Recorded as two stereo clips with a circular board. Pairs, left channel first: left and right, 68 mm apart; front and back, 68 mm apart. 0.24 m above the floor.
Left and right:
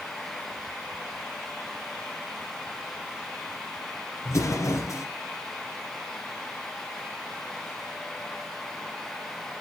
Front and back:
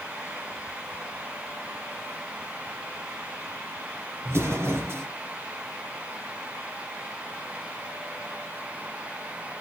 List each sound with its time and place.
4.2 s an explosion: 130° left, 4 m